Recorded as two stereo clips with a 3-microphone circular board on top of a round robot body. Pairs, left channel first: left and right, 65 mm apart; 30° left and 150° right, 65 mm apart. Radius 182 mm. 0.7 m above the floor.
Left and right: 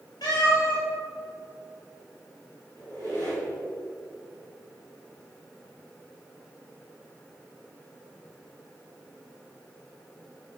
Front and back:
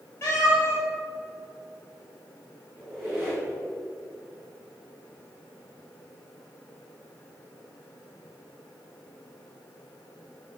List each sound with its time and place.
0.2 s a cat meowing: 85° left, 3.5 m
2.8 s a squeak: 115° left, 3.5 m